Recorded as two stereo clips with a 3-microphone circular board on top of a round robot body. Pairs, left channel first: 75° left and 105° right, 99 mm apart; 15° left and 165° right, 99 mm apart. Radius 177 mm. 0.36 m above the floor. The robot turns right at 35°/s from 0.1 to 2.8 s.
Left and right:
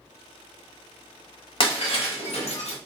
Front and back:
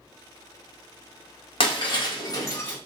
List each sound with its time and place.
1.6 s breaking glass: 45° left, 1.1 m; by 2.8 s 85° left, 1.1 m